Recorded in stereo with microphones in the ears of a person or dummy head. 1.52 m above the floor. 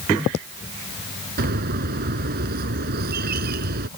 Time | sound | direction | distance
1.4 | a bird | 55° right (ahead or behind) | ?